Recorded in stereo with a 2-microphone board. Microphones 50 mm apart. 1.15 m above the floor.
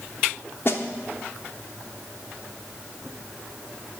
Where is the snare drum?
50° left (ahead or behind), 0.9 m.